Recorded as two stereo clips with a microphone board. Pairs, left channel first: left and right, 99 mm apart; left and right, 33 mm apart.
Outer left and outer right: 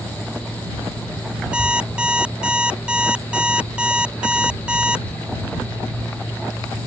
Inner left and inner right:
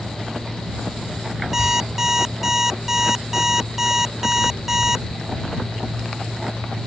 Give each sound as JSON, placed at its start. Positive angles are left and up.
{"t": 1.5, "sound": "an alarm clock", "side_deg": -10}